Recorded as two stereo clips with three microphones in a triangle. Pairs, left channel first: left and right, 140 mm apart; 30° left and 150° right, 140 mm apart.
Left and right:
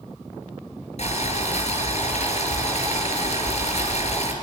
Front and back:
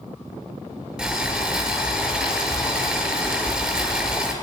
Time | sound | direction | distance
1.0 | boiling | 125° left | 7 m